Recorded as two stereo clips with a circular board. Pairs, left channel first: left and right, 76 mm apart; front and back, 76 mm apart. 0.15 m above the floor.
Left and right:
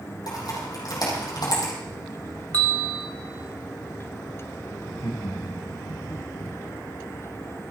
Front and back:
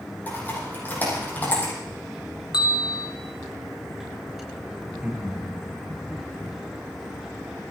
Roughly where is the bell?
Ahead.